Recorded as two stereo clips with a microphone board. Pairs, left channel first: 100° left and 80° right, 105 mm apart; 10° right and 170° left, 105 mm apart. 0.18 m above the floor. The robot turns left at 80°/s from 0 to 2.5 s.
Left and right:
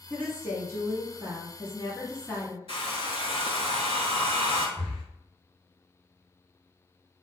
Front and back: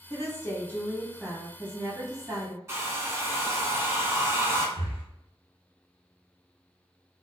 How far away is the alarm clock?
I don't hear an alarm clock.